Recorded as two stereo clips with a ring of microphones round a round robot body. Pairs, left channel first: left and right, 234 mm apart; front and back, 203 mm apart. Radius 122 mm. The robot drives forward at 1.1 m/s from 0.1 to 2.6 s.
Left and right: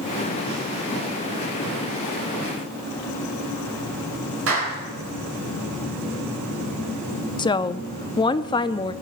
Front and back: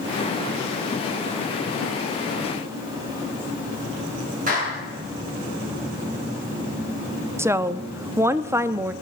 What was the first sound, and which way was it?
A clap, 125° right.